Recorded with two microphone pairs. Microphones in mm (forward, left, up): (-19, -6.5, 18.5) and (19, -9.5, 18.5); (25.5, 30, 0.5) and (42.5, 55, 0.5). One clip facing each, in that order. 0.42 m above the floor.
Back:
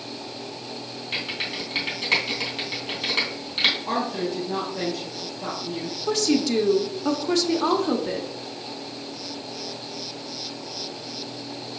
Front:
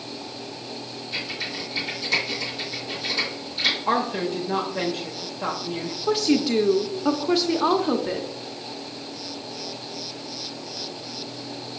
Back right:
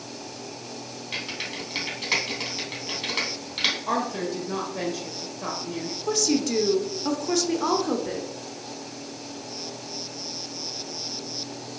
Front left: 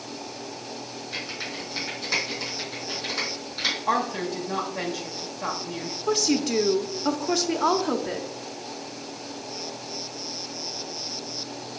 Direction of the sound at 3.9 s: 30° right.